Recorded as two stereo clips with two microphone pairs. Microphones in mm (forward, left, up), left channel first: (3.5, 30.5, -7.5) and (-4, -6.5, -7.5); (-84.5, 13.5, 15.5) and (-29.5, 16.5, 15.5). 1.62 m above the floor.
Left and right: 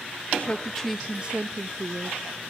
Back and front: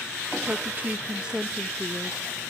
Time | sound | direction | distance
0.4 | a woman speaking | 45° left | 0.6 m